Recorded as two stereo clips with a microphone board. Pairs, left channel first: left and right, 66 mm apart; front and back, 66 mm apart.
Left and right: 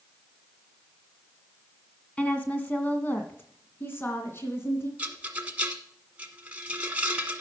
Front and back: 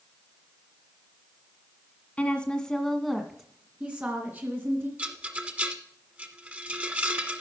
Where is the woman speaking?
45° left, 1.7 m; by 4.9 s 135° left, 2.5 m.